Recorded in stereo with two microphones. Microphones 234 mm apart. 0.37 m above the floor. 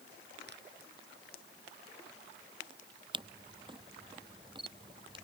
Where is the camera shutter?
20° right (ahead or behind).